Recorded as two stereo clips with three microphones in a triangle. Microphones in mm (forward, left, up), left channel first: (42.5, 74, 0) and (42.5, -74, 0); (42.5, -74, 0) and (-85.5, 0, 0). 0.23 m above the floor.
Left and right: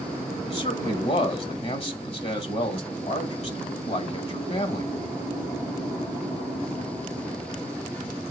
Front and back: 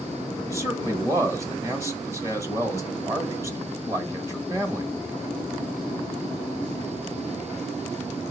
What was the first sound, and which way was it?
A man speaking, 90° left.